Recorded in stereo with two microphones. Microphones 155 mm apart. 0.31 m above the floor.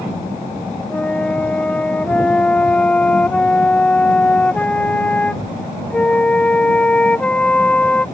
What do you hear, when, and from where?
0.9 s a flute: 5° left (ahead or behind)